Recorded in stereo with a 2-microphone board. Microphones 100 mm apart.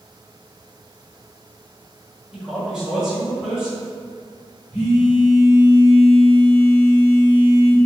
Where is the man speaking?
5° right (ahead or behind), 1.1 m.